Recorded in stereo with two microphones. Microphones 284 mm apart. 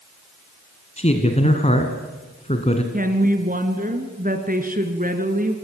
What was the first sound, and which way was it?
A man speaking, 25° left (ahead or behind).